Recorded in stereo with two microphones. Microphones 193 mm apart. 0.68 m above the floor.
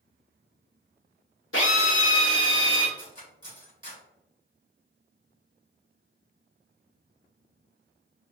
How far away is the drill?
About 1.0 m.